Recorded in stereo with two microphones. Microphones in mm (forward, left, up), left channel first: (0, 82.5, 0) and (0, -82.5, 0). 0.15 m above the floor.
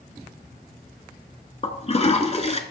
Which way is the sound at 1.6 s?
40° left (ahead or behind).